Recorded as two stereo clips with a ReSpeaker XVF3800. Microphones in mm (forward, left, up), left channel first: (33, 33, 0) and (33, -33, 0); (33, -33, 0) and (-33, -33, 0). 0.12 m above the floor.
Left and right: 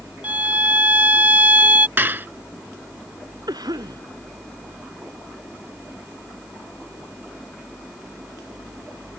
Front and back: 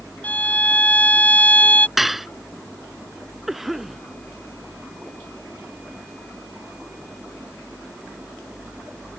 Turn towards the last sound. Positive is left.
turn(degrees=-95)